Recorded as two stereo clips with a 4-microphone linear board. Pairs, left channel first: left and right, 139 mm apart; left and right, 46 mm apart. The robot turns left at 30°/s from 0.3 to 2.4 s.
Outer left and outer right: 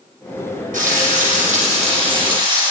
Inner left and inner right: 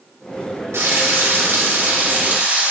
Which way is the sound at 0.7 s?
95° right.